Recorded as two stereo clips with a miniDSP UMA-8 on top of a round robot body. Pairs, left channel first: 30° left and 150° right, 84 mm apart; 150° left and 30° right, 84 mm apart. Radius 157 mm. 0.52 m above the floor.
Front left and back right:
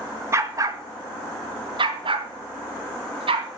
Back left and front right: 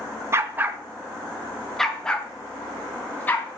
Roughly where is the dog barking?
Right.